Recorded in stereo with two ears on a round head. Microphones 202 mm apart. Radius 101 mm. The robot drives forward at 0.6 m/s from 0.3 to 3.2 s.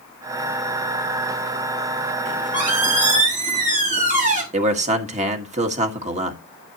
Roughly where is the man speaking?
Right.